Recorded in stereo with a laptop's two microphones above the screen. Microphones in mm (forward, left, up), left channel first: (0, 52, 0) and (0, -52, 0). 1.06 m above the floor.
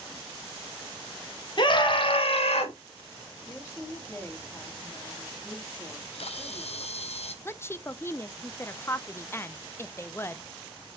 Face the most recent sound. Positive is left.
turn(degrees=20)  # may be behind; listen again after turning